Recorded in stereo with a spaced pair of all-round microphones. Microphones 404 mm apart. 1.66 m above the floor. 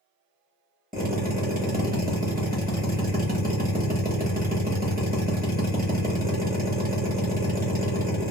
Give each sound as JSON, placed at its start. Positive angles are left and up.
{"t": 0.9, "sound": "a drill", "side_deg": -20, "distance_m": 1.1}